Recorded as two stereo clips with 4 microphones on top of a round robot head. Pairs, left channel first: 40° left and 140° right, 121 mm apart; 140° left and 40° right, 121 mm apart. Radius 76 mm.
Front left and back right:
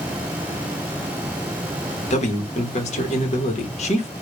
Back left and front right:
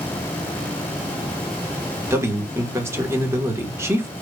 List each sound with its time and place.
2.1 s a man speaking: 25° left, 1.5 m